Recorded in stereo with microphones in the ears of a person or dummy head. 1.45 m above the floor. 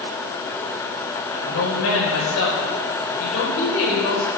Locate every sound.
1.3 s a woman speaking: 85° left, 5.5 m